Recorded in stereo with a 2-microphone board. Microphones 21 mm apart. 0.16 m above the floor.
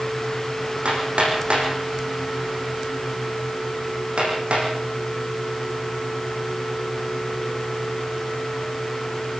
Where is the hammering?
80° right, 7.5 m.